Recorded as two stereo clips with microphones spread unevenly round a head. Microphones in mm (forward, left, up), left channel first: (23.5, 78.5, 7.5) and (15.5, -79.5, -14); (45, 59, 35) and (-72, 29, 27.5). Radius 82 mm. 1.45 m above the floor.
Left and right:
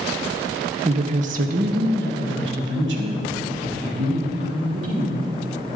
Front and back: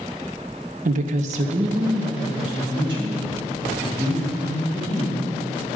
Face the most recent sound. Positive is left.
turn(degrees=-105)